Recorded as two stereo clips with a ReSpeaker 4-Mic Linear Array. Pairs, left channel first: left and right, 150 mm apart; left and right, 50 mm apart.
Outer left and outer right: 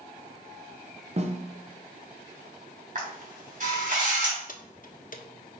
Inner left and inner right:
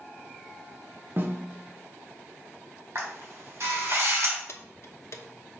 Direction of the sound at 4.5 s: 60° left (ahead or behind).